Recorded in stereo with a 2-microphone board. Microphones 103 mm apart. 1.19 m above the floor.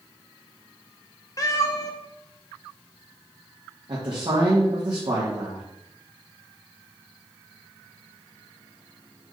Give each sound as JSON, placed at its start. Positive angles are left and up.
{"t": 1.4, "sound": "a cat meowing", "side_deg": 35, "distance_m": 0.8}
{"t": 3.9, "sound": "a man speaking", "side_deg": -50, "distance_m": 1.5}